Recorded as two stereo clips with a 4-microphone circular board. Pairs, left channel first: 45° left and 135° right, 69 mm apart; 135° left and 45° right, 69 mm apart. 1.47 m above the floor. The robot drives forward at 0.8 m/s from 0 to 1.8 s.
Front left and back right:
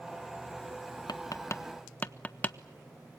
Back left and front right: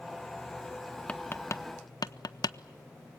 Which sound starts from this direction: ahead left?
Tapping, at 1.1 s.